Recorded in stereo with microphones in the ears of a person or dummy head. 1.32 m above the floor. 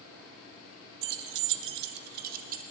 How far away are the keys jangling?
About 0.7 m.